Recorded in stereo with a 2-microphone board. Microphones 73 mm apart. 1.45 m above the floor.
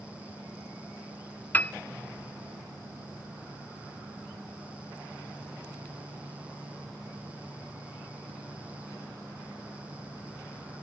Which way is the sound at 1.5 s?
20° left (ahead or behind).